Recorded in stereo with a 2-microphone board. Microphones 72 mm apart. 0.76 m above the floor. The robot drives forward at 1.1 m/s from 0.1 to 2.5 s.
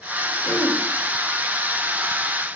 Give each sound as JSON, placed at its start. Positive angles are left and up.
{"t": 0.5, "sound": "throat clearing", "side_deg": 25, "distance_m": 3.5}